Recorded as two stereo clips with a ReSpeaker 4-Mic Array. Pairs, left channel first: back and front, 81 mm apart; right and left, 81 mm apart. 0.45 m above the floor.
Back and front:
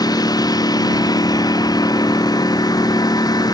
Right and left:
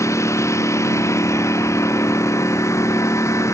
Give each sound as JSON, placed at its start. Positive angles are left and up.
{"t": 0.0, "sound": "a lawn mower", "azimuth_deg": -145}